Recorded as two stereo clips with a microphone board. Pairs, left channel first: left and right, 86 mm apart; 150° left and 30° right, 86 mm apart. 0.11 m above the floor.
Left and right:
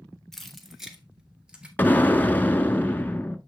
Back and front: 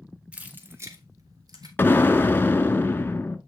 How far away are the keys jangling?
About 1.1 m.